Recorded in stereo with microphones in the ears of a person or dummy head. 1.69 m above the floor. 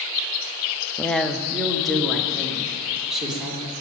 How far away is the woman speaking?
About 0.6 m.